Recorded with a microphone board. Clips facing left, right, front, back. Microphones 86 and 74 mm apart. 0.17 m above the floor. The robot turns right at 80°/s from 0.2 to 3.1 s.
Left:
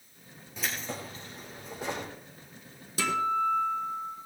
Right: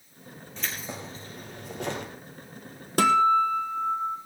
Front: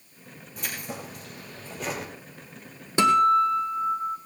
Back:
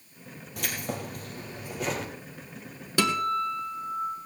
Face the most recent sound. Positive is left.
turn(degrees=-55)